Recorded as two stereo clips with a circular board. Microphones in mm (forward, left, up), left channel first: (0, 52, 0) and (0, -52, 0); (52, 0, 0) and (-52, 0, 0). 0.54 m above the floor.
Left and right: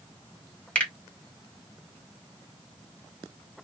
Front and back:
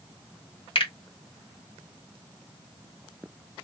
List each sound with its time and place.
0.8 s a finger snap: 15° left, 1.8 m